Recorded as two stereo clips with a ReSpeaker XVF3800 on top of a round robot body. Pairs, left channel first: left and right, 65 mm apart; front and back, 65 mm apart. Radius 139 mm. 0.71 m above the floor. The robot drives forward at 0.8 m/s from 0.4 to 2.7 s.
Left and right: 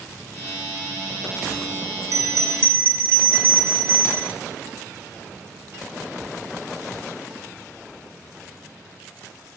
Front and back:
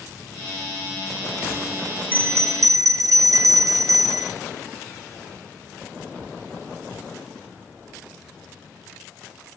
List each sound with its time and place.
2.1 s a bell: 115° right, 0.7 m; by 4.3 s 145° right, 1.0 m